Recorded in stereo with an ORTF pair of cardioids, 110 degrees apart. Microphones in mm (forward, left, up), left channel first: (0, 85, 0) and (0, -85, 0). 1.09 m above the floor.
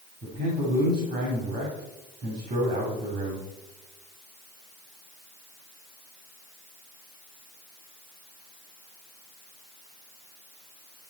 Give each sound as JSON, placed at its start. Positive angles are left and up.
{"t": 0.2, "sound": "a man speaking", "azimuth_deg": -65, "distance_m": 3.0}